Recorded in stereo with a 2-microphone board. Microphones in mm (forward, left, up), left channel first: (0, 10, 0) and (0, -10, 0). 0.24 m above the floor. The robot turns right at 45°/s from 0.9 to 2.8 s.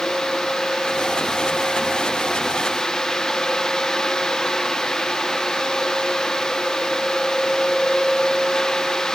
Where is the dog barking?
I don't hear a dog barking.